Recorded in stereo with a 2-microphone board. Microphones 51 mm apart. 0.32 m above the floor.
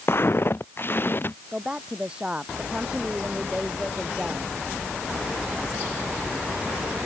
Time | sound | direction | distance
0.1 | footsteps | 50° left (ahead or behind) | ?
1.5 | a woman speaking | 20° right (ahead or behind) | ?